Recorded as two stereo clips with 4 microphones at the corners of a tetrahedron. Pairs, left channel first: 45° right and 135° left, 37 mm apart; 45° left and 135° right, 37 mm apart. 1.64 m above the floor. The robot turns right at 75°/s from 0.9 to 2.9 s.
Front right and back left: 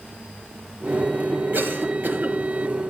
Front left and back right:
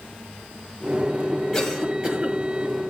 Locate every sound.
1.5 s a cough: 130° left, 1.2 m; by 2.4 s 170° right, 1.2 m